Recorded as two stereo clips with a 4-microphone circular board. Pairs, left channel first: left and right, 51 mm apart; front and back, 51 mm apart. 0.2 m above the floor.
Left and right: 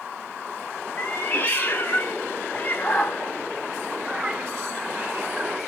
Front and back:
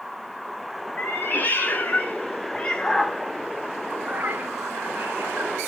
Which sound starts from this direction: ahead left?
A cat meowing, at 1.0 s.